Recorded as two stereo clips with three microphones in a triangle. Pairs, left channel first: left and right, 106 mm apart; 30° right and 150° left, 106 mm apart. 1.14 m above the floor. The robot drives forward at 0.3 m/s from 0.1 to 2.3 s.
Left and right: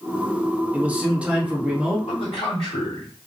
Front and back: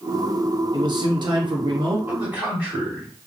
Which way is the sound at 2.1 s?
75° left.